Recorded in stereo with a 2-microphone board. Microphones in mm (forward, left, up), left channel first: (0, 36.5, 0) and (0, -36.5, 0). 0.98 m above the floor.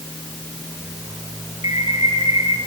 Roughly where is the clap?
No clap in this recording.